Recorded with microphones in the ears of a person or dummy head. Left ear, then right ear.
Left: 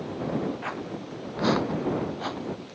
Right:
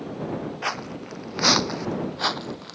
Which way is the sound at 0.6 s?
75° right (ahead or behind).